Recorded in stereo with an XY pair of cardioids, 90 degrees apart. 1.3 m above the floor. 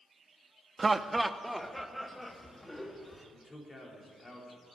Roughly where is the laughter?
Ahead right.